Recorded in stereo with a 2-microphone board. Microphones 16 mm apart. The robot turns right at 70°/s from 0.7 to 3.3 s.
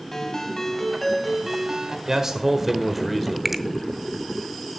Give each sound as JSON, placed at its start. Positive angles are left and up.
{"t": 0.1, "sound": "a ringtone", "azimuth_deg": 140, "distance_m": 1.4}
{"t": 2.1, "sound": "a man speaking", "azimuth_deg": -80, "distance_m": 1.2}
{"t": 3.5, "sound": "a finger snap", "side_deg": -20, "distance_m": 0.6}